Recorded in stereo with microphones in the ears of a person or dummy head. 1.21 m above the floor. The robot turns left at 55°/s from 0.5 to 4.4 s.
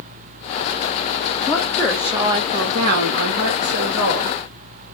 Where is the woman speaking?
25° left, 0.8 m; by 4.4 s 135° right, 0.8 m.